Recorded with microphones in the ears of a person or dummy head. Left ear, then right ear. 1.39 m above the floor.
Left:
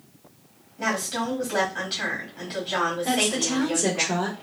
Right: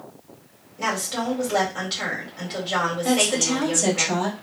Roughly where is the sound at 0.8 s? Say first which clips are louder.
Right 1 dB; centre.